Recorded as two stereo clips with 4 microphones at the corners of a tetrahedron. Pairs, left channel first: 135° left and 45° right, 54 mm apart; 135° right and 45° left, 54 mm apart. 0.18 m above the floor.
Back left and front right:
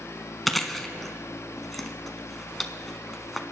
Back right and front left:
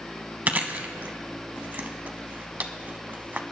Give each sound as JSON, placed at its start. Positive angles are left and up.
{"t": 0.5, "sound": "chewing", "azimuth_deg": 50, "distance_m": 0.7}